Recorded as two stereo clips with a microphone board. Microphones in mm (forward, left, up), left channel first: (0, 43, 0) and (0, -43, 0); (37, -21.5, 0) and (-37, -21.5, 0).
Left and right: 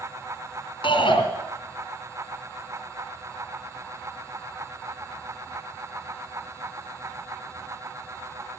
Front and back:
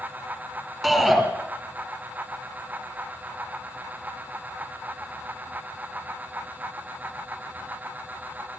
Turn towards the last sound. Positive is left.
turn(degrees=85)